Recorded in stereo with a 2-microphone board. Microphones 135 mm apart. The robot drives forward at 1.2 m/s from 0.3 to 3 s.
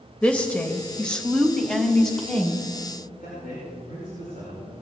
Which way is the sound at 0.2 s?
10° left (ahead or behind).